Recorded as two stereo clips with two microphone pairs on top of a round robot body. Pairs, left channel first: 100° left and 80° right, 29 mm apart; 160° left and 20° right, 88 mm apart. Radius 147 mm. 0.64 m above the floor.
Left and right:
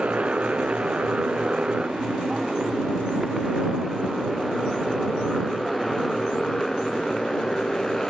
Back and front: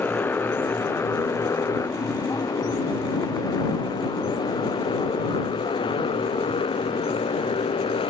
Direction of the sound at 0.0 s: 130° right.